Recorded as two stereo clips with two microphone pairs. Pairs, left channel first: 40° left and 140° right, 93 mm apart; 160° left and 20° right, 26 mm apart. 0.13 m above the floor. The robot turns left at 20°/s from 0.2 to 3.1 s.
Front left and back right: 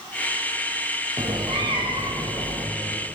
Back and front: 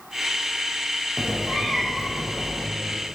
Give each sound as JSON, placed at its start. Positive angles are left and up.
{"t": 1.2, "sound": "a cat meowing", "azimuth_deg": -105, "distance_m": 1.8}